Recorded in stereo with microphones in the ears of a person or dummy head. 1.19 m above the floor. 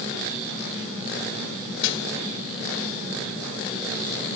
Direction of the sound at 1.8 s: 65° left (ahead or behind).